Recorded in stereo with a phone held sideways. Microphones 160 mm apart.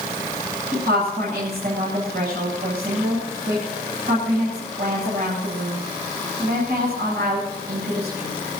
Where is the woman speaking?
80° right, 7.5 m.